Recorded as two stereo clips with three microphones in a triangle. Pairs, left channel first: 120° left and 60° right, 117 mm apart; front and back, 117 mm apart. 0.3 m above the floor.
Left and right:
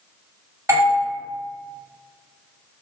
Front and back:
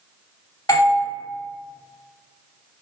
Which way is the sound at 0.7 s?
25° right.